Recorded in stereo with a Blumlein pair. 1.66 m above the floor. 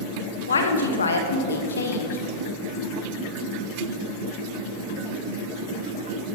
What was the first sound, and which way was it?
A woman speaking, 70° left.